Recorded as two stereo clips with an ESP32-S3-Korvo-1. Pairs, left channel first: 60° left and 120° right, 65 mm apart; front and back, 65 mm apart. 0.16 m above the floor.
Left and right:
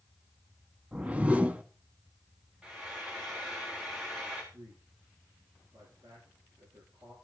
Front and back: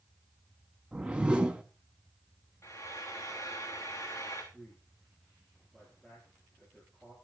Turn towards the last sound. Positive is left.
turn(degrees=-90)